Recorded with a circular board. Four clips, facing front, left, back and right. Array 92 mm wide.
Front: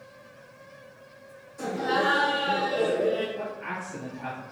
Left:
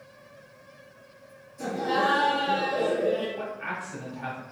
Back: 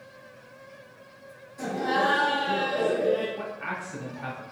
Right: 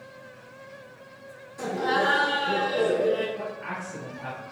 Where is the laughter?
105° right, 1.6 m.